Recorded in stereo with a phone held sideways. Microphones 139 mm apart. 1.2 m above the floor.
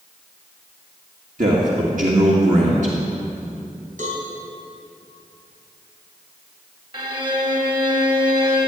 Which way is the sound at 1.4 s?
65° right (ahead or behind).